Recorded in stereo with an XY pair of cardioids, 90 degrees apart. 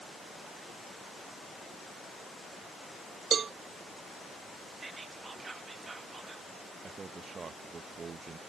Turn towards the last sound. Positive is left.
turn(degrees=-45)